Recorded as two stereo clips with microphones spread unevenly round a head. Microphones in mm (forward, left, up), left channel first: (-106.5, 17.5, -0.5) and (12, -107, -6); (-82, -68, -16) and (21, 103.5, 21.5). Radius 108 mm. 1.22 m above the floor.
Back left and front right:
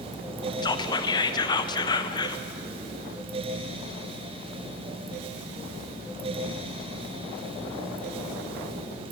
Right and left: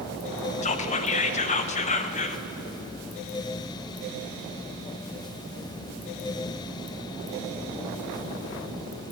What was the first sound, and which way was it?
Whispering, 160° right.